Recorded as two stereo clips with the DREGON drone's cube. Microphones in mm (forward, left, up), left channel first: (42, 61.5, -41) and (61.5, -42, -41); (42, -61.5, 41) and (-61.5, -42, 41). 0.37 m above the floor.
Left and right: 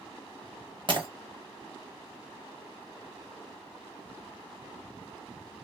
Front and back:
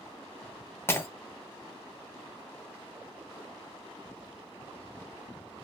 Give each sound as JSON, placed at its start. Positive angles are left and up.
{"t": 0.9, "sound": "breaking glass", "azimuth_deg": -75, "distance_m": 0.7}